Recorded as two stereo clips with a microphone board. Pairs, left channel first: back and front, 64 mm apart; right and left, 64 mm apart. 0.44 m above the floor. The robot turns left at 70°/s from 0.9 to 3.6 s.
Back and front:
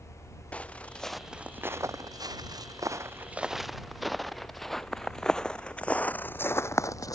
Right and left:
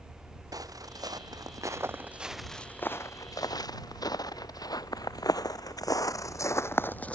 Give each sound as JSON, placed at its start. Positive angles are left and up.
{"t": 0.5, "sound": "footsteps", "azimuth_deg": 110}